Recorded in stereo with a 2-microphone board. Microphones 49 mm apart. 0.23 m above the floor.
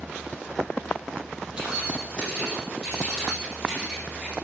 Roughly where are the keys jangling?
Centre.